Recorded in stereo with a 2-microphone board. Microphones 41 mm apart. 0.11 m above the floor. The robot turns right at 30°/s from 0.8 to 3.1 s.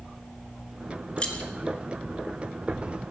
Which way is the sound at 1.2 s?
30° left (ahead or behind).